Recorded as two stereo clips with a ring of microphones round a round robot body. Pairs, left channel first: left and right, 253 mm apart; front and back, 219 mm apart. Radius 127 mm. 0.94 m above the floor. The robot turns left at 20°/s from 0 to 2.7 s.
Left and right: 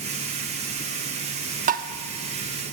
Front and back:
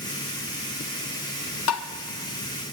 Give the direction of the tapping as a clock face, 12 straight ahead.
1 o'clock.